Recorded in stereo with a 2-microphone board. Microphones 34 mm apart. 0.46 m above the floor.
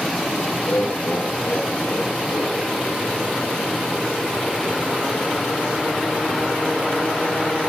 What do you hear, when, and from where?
0.6 s laughter: 75° left (ahead or behind), 5.5 m